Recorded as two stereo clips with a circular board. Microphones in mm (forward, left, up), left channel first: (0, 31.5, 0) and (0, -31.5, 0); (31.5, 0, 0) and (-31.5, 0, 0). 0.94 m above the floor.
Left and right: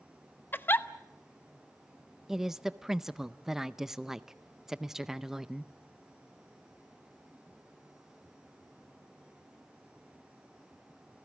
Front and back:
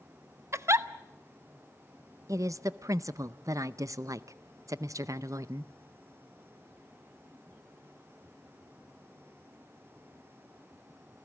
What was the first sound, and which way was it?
A giggle, 140° left.